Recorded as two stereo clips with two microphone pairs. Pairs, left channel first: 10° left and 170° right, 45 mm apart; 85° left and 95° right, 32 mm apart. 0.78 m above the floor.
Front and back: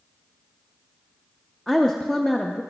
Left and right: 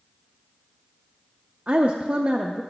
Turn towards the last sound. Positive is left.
turn(degrees=-65)